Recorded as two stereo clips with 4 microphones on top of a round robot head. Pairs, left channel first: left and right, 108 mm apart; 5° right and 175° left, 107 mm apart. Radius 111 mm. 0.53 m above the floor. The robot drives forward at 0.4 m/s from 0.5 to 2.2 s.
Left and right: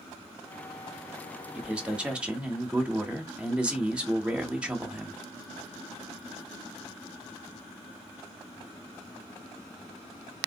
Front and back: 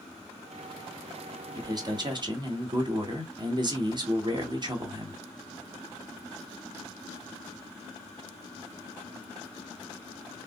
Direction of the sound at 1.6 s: 160° right.